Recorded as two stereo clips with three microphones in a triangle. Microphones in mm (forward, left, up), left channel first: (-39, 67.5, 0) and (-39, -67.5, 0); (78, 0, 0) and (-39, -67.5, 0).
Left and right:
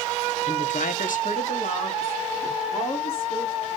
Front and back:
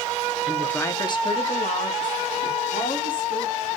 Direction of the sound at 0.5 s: 125° left.